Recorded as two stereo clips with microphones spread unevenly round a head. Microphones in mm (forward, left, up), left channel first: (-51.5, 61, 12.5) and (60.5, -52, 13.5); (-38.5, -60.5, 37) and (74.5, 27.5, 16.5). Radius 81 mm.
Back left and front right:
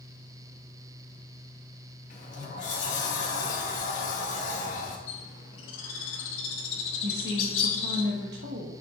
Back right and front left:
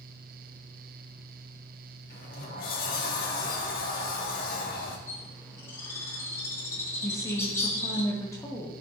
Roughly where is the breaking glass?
I don't hear breaking glass.